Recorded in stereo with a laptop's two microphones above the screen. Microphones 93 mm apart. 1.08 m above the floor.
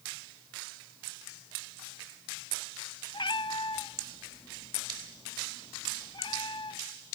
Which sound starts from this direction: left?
A cat meowing, at 3.1 s.